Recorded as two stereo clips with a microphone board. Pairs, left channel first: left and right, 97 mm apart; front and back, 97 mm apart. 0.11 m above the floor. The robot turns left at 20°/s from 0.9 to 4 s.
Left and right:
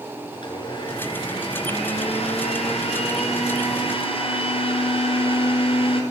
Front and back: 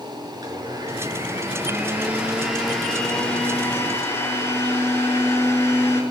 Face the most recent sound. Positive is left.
turn(degrees=65)